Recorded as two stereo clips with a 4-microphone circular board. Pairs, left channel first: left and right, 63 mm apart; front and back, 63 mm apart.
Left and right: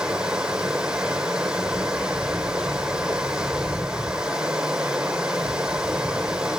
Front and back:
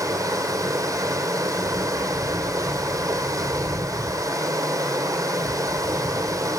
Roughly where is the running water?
Behind.